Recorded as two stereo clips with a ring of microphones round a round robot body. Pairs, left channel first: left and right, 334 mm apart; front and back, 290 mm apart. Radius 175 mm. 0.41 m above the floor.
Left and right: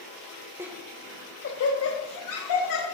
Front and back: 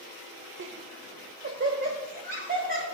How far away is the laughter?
About 1.2 m.